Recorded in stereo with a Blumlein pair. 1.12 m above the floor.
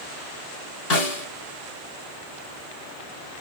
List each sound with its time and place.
0.9 s a snare drum: 40° left, 3.5 m